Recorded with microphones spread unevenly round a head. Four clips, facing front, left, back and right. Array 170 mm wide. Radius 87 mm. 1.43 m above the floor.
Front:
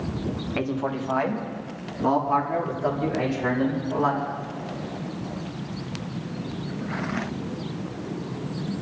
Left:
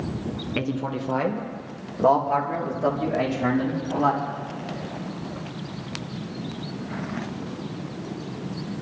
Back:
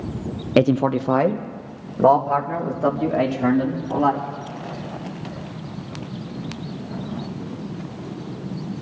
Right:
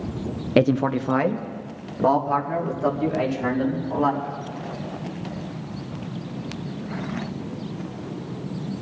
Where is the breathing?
No breathing in this recording.